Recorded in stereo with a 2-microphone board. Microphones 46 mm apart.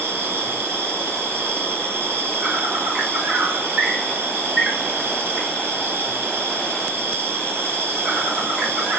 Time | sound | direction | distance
0.0 | an insect | 50° right (ahead or behind) | 2.5 m